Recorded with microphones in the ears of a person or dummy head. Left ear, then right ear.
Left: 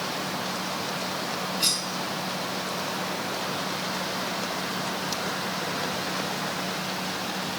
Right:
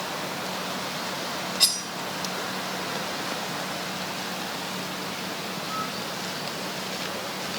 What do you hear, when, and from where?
1.6 s cutlery clinking: 30° right (ahead or behind), 1.2 m